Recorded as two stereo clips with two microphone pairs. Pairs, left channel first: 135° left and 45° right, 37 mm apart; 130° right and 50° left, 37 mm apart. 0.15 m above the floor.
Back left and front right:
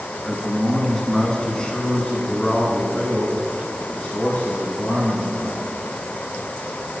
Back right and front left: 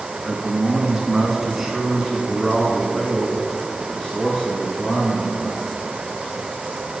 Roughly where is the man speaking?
Ahead left.